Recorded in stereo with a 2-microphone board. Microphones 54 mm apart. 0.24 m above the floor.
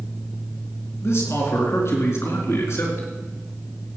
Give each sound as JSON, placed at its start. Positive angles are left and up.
{"t": 1.0, "sound": "a man speaking", "side_deg": 60, "distance_m": 3.5}